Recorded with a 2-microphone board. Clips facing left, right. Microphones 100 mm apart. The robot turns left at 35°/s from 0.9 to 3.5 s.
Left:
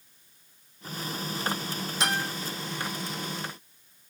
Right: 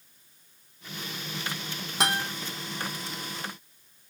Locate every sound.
2.0 s a guitar: 80° right, 2.5 m